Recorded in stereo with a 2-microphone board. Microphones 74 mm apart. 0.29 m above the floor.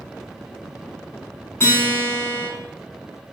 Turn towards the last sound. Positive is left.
turn(degrees=30)  # may be behind; listen again after turning